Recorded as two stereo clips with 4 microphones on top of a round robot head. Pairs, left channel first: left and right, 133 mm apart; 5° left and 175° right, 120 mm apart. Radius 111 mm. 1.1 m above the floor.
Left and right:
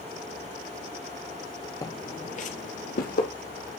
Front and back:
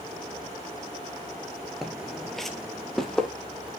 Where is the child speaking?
I don't hear a child speaking.